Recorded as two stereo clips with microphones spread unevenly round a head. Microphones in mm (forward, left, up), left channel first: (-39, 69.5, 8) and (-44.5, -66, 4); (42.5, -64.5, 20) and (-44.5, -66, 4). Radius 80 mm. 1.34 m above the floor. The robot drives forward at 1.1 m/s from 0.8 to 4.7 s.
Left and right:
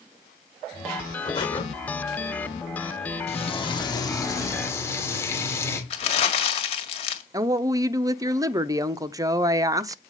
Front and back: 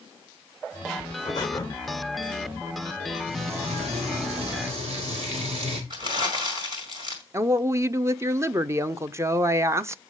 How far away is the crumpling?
About 1.8 m.